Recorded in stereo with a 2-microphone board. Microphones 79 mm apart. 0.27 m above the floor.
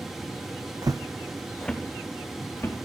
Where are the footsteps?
60° right (ahead or behind), 0.6 m; by 2.8 s 35° left (ahead or behind), 1.7 m.